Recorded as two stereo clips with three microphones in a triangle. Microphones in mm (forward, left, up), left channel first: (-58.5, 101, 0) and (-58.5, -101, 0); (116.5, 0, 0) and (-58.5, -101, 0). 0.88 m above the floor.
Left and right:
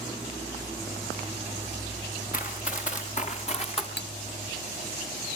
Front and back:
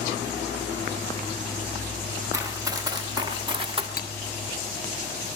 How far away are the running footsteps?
About 4.5 m.